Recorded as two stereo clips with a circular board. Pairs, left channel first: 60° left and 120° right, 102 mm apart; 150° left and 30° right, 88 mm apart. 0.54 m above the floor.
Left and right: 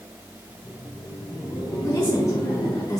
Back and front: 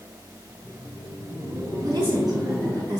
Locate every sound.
0.5 s laughter: 15° left, 4 m
1.8 s a woman speaking: 10° left, 4.5 m